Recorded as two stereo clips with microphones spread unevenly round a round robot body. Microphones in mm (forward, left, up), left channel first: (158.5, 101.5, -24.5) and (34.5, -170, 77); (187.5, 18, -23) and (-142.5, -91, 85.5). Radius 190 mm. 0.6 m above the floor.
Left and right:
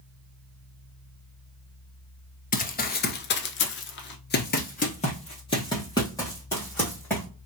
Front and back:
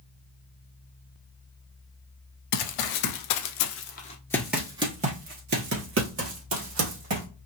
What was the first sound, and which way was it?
Running footsteps, 10° right.